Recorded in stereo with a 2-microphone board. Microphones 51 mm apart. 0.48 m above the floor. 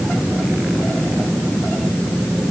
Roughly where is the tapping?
No tapping in this recording.